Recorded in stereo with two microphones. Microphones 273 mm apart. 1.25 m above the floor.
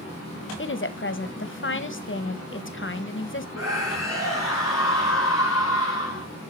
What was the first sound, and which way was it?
A woman speaking, 45° left (ahead or behind).